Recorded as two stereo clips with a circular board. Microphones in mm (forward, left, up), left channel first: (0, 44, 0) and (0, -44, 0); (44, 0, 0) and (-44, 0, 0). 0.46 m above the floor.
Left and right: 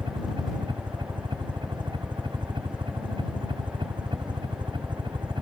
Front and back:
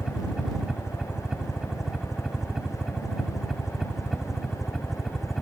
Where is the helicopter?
100° right; by 5.4 s 90° right.